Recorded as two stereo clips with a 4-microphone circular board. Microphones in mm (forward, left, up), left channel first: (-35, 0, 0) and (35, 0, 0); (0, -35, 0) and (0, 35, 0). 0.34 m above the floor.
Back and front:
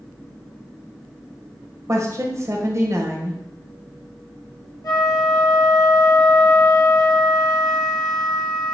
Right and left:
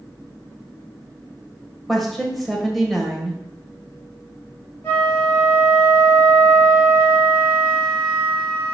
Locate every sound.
1.9 s a woman speaking: 5° right, 1.5 m
4.8 s a flute: 150° right, 3 m